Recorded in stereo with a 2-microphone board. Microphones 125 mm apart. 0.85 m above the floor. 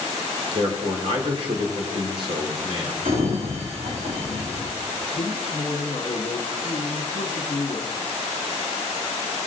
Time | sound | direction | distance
0.5 | a man speaking | 45° right (ahead or behind) | 3 m
3.0 | a sliding door | 80° right | 5 m
5.1 | a man speaking | 50° left (ahead or behind) | 1.1 m